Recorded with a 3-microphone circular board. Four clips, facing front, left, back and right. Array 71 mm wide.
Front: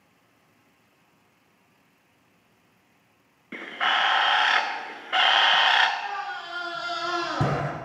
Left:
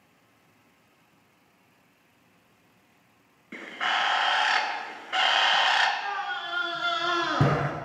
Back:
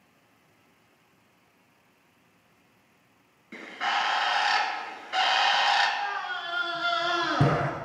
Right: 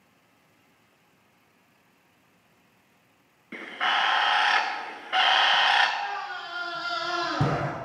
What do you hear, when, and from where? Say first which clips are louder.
3.5 s a bird: right 2 dB, front 3 dB; 15° right, 0.8 m
6.0 s a scream: left 1 dB, even; 125° left, 1.2 m